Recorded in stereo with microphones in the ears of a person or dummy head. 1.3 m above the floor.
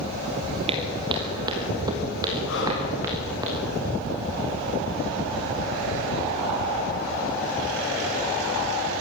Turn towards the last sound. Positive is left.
turn(degrees=70)  # may be behind; listen again after turning